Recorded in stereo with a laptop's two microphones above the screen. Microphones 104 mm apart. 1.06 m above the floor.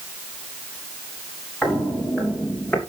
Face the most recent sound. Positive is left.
turn(degrees=10)  # may be behind; listen again after turning